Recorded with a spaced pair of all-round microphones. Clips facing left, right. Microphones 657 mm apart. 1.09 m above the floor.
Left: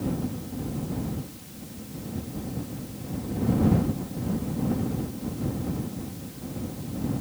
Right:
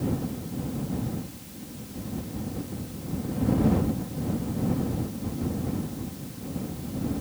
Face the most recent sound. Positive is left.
No sound to turn to.